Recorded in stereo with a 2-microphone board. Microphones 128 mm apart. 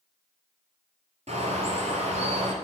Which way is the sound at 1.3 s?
60° right (ahead or behind).